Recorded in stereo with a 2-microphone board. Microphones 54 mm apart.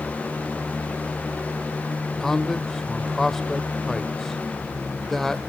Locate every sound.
2.2 s a man speaking: 5° left (ahead or behind), 0.9 m